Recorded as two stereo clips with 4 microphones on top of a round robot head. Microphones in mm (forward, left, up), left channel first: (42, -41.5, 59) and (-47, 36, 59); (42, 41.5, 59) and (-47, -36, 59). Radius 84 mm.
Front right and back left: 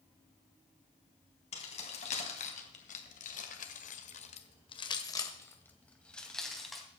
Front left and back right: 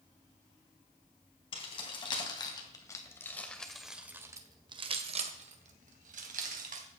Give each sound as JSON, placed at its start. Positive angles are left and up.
{"t": 1.5, "sound": "keys jangling", "azimuth_deg": -5, "distance_m": 3.5}